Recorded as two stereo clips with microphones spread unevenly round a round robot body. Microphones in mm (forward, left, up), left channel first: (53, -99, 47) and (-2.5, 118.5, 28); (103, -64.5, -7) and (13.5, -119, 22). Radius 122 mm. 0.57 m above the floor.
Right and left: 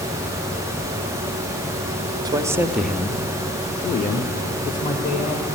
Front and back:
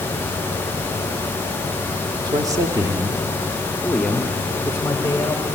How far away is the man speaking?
About 1.1 m.